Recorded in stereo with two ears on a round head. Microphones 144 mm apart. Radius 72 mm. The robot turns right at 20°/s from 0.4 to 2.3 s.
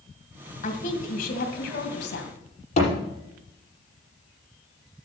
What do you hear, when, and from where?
0.6 s a woman speaking: 50° left, 2.5 m; by 2.4 s 85° left, 2.5 m
2.8 s a thud: 45° left (ahead or behind), 6 m